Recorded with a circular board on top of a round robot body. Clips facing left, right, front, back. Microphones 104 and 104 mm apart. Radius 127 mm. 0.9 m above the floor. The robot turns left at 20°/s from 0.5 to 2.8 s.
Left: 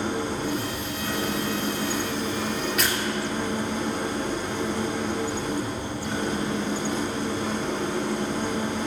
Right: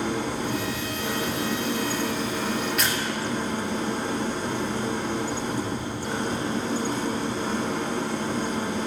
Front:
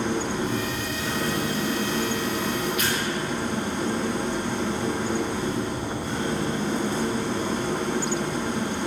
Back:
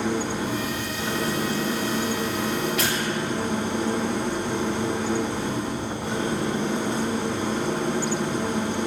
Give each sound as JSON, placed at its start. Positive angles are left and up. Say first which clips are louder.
{"t": 0.0, "sound": "an engine running", "louder": "even, even", "azimuth_deg": -100, "distance_m": 3.0}
{"t": 2.8, "sound": "tearing paper", "louder": "left 1 dB, back 1 dB", "azimuth_deg": 180, "distance_m": 2.5}